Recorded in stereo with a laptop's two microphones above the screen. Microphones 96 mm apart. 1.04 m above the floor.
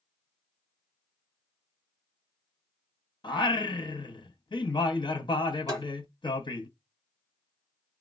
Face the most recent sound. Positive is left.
turn(degrees=-40)  # may be behind; listen again after turning